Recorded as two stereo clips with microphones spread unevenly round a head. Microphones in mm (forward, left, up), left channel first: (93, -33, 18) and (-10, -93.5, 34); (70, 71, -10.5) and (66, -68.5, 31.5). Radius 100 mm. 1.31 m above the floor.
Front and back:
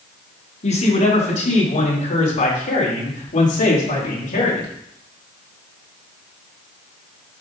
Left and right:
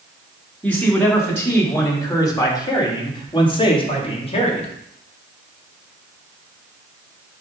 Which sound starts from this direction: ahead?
A man speaking, at 0.6 s.